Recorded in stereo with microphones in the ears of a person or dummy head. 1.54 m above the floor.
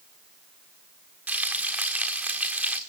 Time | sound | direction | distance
1.3 | frying | 5° right (ahead or behind) | 1.9 m